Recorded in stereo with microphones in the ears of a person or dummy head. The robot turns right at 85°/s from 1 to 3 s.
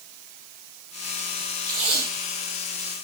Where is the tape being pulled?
15° right (ahead or behind), 0.8 m; by 3.0 s centre (ahead or behind), 0.8 m.